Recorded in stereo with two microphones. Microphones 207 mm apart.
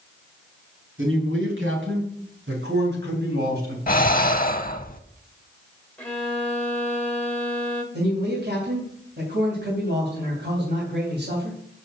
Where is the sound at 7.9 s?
55° right (ahead or behind), 3.5 m.